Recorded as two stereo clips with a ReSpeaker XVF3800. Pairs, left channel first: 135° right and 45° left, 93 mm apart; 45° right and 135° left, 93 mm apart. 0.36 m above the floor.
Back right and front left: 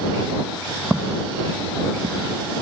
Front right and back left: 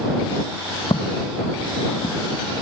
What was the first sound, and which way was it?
Footsteps, 30° right.